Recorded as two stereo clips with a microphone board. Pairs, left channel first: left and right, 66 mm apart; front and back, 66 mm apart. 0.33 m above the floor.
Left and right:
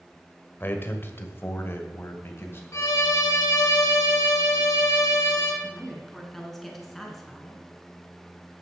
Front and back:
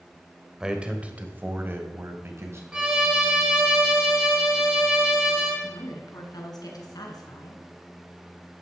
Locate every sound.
0.6 s a man speaking: 105° left, 1.4 m; by 2.6 s 140° left, 2.5 m
2.7 s a violin: 105° left, 2 m
5.6 s a woman speaking: 5° left, 3.5 m